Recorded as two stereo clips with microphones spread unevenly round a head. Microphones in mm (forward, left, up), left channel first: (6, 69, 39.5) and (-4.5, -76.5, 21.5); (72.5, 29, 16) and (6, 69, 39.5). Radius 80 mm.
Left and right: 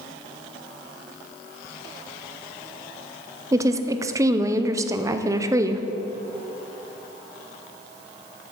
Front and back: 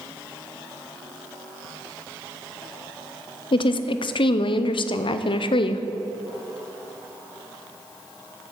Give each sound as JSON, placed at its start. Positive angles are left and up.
{"t": 3.5, "sound": "a woman speaking", "azimuth_deg": -25, "distance_m": 0.6}